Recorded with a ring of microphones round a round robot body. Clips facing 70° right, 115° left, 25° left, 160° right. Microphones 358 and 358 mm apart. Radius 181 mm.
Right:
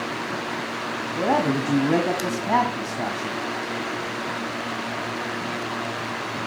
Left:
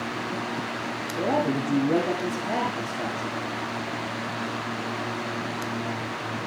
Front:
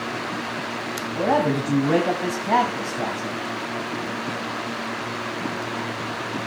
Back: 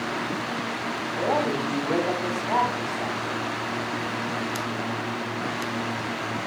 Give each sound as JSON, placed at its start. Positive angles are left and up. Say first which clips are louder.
{"t": 1.1, "sound": "a man speaking", "louder": "right 2 dB, front 4 dB", "azimuth_deg": -5, "distance_m": 2.5}